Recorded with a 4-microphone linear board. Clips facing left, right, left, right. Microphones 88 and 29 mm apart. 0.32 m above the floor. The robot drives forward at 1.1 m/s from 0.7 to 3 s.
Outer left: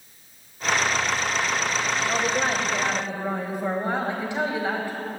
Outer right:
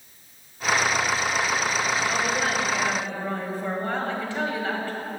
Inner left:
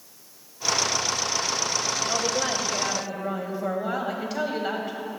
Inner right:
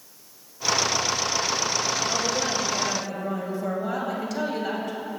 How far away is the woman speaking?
About 1.0 m.